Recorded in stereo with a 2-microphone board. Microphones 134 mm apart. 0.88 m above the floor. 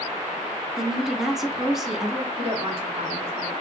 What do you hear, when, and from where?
0.8 s a woman speaking: 5° right (ahead or behind), 0.9 m
2.4 s a woman speaking: 45° right (ahead or behind), 1.8 m